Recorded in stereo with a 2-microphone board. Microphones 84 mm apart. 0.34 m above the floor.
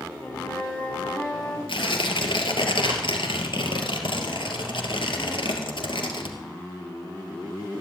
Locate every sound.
0.2 s a flute: 20° left (ahead or behind), 2.5 m
1.7 s tearing paper: 70° left (ahead or behind), 2.5 m